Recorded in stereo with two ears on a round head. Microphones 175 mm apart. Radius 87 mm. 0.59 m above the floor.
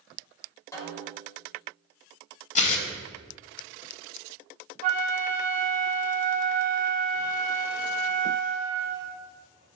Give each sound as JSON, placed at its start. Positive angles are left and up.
{"t": 0.7, "sound": "a snare drum", "side_deg": 15, "distance_m": 2.5}
{"t": 2.5, "sound": "tearing paper", "side_deg": 40, "distance_m": 1.1}
{"t": 4.8, "sound": "a flute", "side_deg": -40, "distance_m": 1.3}